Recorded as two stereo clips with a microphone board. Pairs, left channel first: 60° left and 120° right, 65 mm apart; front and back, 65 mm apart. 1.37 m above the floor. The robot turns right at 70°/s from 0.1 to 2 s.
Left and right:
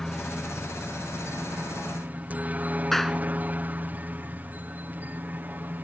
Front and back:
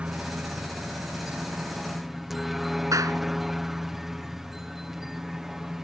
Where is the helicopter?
135° left; by 5.8 s 100° right.